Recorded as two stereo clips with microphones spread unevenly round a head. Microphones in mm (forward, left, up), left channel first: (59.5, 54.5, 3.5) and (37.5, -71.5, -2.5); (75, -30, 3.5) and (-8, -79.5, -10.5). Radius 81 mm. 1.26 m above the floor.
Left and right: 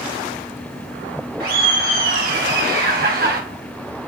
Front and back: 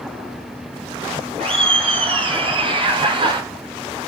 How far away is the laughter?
About 4.5 m.